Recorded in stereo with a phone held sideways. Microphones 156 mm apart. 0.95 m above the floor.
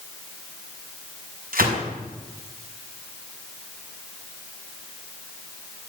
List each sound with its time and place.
1.5 s a gunshot: 90° right, 5 m